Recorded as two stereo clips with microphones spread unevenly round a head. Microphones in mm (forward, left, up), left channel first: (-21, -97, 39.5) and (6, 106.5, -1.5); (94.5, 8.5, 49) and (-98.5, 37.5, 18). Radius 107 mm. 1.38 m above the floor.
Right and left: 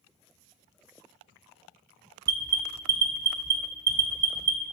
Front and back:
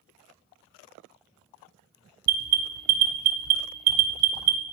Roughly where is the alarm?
Behind.